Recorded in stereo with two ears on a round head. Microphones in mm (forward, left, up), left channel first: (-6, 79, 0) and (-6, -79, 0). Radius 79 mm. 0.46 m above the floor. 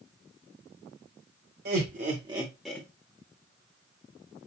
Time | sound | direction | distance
1.6 | laughter | 55° right (ahead or behind) | 1.3 m